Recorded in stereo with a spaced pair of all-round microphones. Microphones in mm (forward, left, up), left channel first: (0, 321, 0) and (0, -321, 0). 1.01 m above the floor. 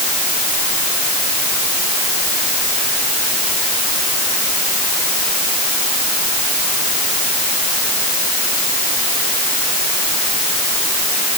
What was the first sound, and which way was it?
Only background noise.